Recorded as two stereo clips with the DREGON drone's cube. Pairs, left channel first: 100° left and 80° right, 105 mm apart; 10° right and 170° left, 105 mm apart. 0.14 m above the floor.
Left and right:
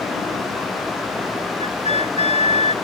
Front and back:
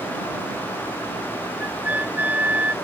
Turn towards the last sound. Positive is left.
turn(degrees=95)